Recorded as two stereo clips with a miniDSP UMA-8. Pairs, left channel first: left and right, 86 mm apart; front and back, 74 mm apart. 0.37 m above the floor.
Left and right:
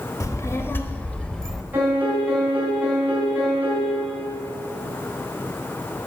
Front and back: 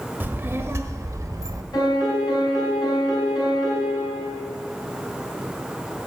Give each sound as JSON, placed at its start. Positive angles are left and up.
{"t": 0.2, "sound": "a child speaking", "azimuth_deg": 125, "distance_m": 1.1}
{"t": 1.7, "sound": "a piano", "azimuth_deg": -20, "distance_m": 3.5}